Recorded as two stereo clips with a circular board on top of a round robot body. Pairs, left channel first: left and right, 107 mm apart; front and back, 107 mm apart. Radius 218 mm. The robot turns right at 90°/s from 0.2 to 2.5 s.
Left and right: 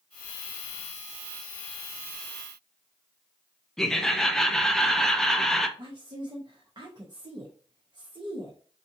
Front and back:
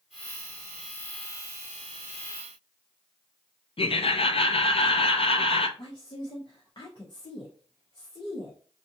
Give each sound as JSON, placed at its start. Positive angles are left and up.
{"t": 3.8, "sound": "laughter", "azimuth_deg": 5, "distance_m": 0.9}
{"t": 5.8, "sound": "a woman speaking", "azimuth_deg": -45, "distance_m": 1.2}